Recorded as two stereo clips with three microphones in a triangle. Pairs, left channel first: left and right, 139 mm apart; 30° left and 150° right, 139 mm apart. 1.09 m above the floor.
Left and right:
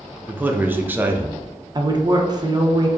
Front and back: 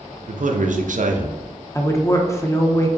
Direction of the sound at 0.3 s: 165° right.